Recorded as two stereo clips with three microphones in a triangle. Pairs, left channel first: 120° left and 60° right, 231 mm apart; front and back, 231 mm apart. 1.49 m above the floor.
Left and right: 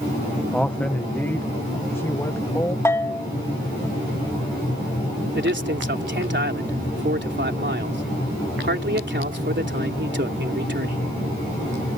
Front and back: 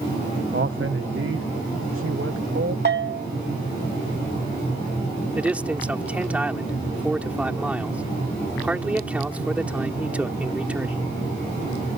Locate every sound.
0.5 s a man speaking: 155° right; by 2.8 s 165° right
2.9 s a bell: 165° right
5.3 s a man speaking: 95° right